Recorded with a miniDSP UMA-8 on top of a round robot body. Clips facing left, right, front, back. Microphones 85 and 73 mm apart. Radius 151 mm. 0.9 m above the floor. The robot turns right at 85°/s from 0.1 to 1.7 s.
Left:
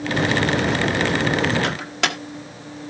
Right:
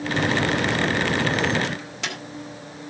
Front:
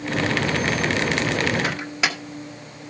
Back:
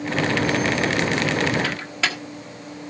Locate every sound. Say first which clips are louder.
1.6 s a microwave: left 6 dB, front 1 dB; 70° left, 1.1 m; by 2.2 s 75° left, 1.1 m